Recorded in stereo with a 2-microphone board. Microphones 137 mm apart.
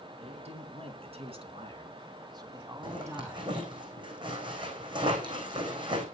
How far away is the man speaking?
About 4 m.